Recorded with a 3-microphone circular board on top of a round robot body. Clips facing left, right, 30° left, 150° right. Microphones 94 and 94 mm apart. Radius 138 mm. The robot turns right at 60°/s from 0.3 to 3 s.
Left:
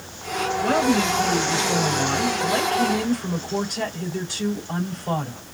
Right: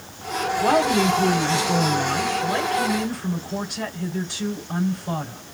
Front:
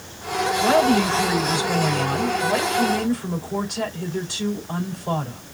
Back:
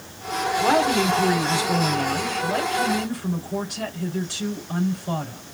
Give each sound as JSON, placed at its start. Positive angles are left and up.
{"t": 0.6, "sound": "a woman speaking", "azimuth_deg": -95, "distance_m": 4.0}